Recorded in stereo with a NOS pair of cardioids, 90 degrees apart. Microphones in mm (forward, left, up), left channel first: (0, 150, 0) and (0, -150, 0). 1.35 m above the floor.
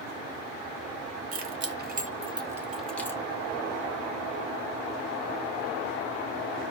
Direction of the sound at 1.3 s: 50° right.